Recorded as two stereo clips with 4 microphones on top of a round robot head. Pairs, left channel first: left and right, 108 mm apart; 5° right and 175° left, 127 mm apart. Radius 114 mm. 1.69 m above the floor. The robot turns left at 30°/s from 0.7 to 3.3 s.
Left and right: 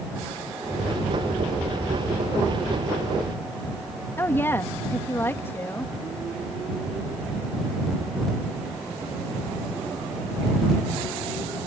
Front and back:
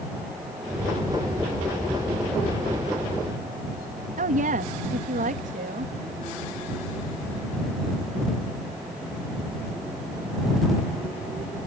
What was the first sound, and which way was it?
A woman speaking, 160° left.